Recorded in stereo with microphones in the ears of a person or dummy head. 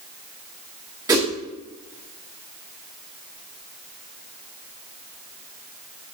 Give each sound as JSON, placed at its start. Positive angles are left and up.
{"t": 1.1, "sound": "a whoosh", "side_deg": -15, "distance_m": 1.2}